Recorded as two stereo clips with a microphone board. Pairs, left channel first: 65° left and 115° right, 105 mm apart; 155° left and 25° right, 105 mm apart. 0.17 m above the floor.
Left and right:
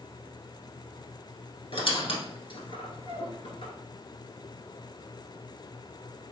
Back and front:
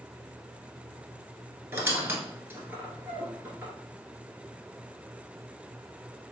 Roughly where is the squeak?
Ahead left.